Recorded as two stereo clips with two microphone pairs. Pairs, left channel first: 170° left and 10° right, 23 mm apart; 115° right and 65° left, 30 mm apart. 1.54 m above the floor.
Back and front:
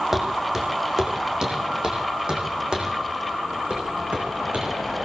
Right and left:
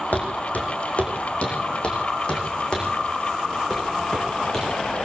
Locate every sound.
0.1 s footsteps: 85° right, 5 m; by 4.7 s 40° right, 7.5 m